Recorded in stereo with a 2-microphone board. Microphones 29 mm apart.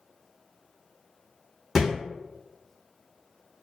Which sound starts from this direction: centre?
A thud, at 1.8 s.